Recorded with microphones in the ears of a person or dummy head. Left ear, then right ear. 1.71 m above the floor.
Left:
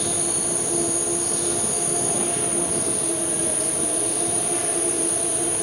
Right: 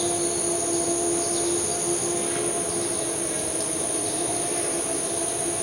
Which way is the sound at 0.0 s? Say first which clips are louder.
Right 1 dB; 25° right (ahead or behind).